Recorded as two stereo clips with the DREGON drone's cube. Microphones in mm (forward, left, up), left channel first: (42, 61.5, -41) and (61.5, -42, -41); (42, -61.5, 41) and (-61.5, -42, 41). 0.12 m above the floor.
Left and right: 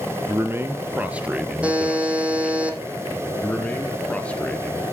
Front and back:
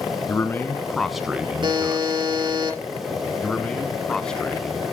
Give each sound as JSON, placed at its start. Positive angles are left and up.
{"t": 0.3, "sound": "a man speaking", "azimuth_deg": -45, "distance_m": 1.3}
{"t": 1.6, "sound": "a buzzer", "azimuth_deg": -155, "distance_m": 3.0}
{"t": 3.4, "sound": "a man speaking", "azimuth_deg": 55, "distance_m": 1.1}